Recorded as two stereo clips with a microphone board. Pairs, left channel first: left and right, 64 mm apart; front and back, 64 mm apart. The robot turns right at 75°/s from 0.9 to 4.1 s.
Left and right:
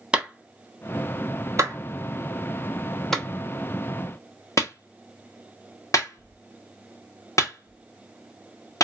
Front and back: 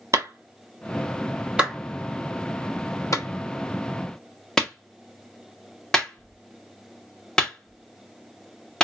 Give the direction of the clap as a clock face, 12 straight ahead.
5 o'clock.